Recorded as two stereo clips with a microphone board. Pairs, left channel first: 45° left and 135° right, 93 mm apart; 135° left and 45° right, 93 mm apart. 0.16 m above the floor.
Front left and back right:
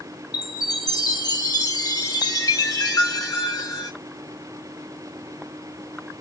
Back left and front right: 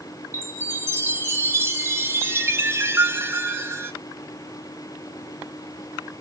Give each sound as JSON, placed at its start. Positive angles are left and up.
{"t": 0.3, "sound": "a chime", "azimuth_deg": 10, "distance_m": 0.6}